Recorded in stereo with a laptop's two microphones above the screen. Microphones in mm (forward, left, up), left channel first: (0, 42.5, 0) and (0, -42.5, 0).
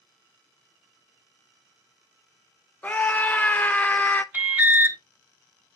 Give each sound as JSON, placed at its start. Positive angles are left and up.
{"t": 2.8, "sound": "a scream", "side_deg": 15, "distance_m": 0.6}
{"t": 4.3, "sound": "an alarm", "side_deg": -25, "distance_m": 1.2}